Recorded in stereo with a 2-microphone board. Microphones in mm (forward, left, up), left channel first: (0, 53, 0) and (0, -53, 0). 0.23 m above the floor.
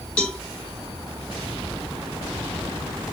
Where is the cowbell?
5° left (ahead or behind), 1.7 m.